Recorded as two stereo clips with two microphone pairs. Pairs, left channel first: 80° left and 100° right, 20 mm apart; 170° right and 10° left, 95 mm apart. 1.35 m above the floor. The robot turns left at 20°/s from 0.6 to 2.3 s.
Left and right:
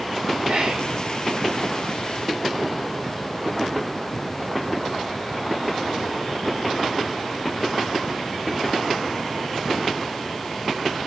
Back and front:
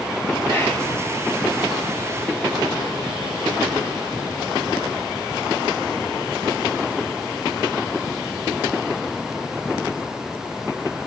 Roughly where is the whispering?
Right.